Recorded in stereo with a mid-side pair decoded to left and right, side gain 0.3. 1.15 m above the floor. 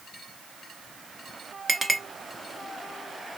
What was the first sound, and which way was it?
A clink, 25° right.